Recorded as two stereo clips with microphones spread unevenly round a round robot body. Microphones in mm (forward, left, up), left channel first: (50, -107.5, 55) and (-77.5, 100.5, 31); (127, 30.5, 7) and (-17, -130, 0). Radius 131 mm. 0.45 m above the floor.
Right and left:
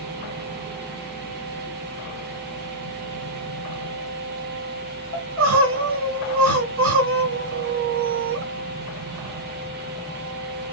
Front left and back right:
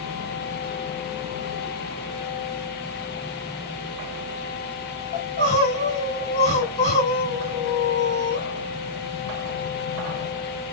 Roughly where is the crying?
Left.